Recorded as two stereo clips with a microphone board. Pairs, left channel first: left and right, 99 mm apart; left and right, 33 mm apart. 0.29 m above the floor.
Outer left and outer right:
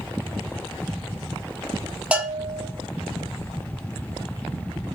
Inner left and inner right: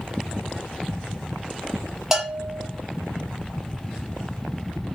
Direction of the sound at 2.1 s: 10° right (ahead or behind).